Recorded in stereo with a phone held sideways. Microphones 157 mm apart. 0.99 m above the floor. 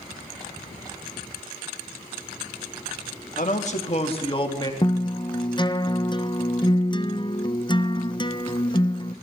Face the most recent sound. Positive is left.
turn(degrees=30)  # may be behind; listen again after turning